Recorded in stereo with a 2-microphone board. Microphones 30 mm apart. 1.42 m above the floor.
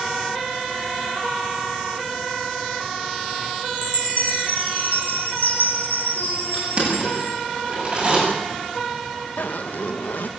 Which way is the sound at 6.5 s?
30° right (ahead or behind).